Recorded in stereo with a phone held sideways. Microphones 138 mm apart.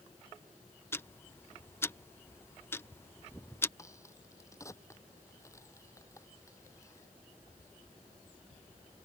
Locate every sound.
0.9 s ticking: 15° left (ahead or behind)
3.8 s a crack: 20° left (ahead or behind)